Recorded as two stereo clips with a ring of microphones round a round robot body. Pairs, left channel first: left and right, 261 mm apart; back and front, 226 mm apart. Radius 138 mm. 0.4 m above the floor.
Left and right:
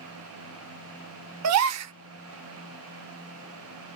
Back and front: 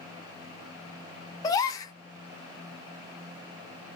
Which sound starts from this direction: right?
A gasp, at 1.4 s.